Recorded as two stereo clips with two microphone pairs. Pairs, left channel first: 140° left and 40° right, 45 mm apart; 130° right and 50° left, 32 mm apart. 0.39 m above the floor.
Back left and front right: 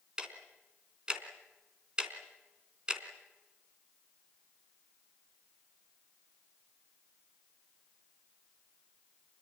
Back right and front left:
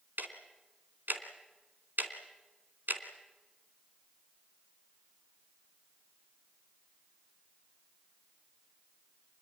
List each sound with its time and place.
0.2 s ticking: 30° left, 2.5 m